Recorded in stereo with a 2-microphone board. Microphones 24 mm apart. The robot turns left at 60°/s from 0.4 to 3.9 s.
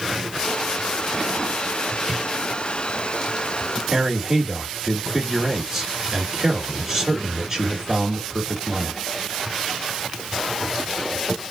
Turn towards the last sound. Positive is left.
turn(degrees=-20)  # may be behind; listen again after turning